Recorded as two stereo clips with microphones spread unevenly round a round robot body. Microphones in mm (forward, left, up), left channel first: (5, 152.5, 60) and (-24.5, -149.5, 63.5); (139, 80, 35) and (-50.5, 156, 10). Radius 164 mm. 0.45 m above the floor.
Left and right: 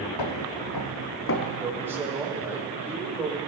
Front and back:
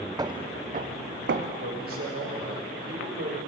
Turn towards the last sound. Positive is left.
turn(degrees=-175)